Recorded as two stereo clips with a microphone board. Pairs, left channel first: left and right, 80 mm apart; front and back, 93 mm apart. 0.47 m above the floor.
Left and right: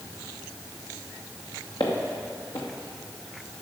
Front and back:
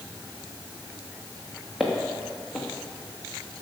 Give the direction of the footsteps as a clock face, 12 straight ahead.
9 o'clock.